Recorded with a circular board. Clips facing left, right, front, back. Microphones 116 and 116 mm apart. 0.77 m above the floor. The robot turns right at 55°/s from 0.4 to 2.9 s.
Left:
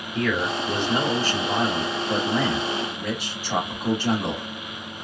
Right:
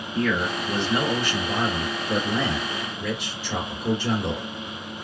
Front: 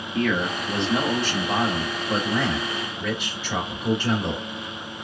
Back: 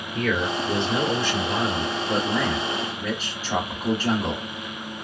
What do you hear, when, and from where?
0.1 s a man speaking: 5° right, 1.7 m; by 4.4 s 130° left, 1.7 m